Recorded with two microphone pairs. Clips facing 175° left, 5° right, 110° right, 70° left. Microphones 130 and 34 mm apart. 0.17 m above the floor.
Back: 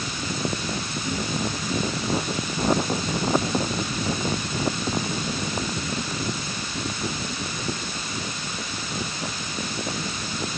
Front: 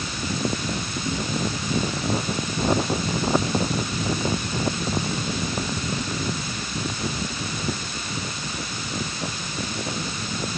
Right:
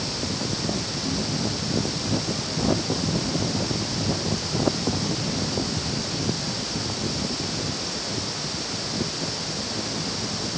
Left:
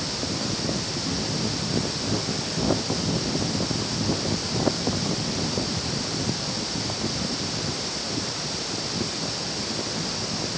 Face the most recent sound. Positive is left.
No sound to turn to.